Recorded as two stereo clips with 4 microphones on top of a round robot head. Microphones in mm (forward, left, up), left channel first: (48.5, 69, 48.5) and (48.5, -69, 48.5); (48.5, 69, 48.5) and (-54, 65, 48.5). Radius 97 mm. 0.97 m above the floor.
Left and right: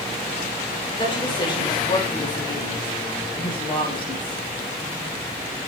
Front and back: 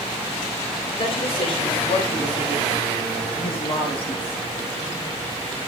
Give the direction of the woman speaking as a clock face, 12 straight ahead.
11 o'clock.